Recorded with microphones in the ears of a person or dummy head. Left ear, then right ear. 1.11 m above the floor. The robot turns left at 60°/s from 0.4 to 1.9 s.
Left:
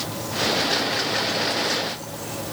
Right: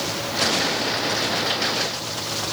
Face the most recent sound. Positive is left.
No sound to turn to.